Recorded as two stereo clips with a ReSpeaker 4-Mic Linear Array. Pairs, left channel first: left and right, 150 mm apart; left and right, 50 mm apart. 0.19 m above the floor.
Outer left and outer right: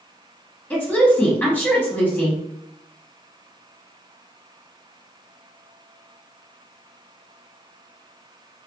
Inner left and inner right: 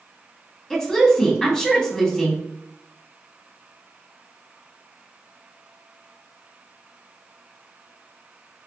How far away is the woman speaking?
About 1.0 m.